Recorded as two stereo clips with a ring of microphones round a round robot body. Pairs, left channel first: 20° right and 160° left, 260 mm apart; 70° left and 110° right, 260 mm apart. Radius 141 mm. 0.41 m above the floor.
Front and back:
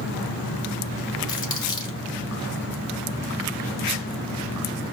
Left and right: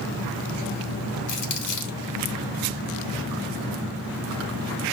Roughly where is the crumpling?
Ahead left.